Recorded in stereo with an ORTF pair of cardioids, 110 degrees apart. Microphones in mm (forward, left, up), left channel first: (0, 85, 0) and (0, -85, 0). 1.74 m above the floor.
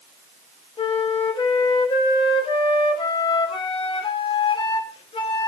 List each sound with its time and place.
0.8 s a flute: 30° left, 1.6 m